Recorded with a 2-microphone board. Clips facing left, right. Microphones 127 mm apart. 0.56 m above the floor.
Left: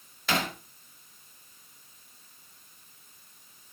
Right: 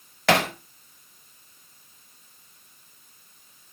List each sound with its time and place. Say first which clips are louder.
0.3 s hammering: right 8 dB; 75° right (ahead or behind), 1.5 m